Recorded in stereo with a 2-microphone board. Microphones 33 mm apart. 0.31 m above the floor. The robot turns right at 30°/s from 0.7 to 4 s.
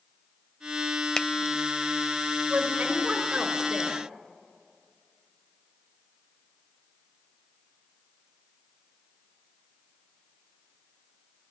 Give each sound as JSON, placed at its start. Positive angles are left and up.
{"t": 1.2, "sound": "a finger snap", "side_deg": 20, "distance_m": 0.9}
{"t": 2.5, "sound": "a woman speaking", "azimuth_deg": -55, "distance_m": 3.5}